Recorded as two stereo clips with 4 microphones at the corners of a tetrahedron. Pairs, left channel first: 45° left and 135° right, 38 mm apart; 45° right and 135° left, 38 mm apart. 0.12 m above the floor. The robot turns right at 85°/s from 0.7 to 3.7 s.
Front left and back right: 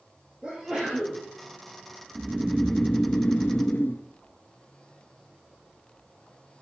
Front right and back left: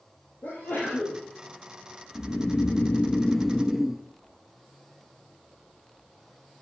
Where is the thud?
No thud in this recording.